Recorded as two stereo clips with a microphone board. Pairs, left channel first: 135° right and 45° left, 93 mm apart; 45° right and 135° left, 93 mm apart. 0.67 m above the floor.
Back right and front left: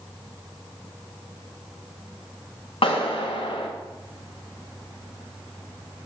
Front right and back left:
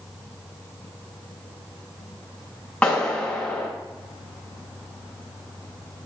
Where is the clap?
120° right, 4.5 m.